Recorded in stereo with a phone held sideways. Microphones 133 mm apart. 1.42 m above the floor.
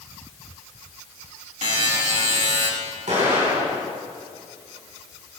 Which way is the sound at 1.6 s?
65° right (ahead or behind).